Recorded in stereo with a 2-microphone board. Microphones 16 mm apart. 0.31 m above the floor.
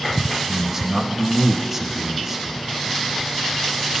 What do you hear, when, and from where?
0.5 s a man speaking: 20° right (ahead or behind), 0.9 m